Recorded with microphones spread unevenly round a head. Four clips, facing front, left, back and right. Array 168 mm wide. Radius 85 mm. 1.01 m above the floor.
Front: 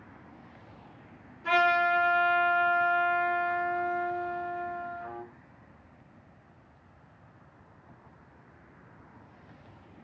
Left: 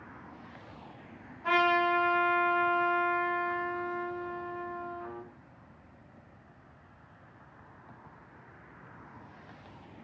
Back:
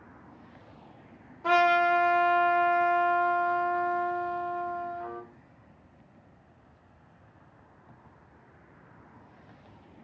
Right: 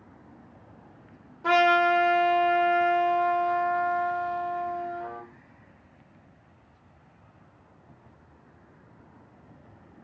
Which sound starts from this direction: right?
A trumpet, at 1.4 s.